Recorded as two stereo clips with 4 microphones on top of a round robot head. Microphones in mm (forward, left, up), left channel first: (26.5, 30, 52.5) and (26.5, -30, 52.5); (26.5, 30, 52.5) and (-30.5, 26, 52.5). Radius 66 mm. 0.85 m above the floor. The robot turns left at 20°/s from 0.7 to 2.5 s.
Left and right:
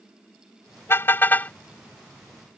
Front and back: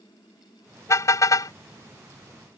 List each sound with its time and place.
0.9 s a car horn: 40° left; by 1.5 s 25° left